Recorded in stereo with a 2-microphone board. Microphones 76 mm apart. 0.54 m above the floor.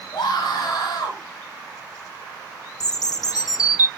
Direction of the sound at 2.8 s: 55° left (ahead or behind).